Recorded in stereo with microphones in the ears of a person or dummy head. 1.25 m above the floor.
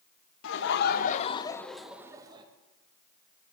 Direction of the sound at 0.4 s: 70° left (ahead or behind).